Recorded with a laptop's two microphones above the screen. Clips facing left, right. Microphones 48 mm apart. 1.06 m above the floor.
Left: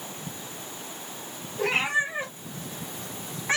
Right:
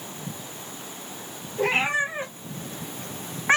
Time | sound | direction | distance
1.6 | a cat meowing | 35° right (ahead or behind) | 1.1 m